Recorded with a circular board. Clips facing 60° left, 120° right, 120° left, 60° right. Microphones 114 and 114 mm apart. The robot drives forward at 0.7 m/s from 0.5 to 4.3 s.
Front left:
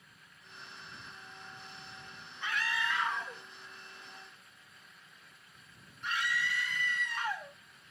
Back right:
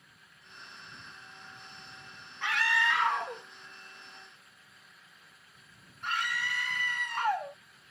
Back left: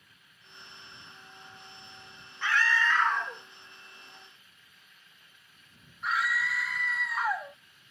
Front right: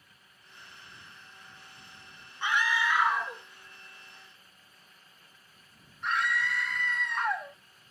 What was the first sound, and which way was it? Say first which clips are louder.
A scream: back right 5 dB, back left 1 dB; 130° right.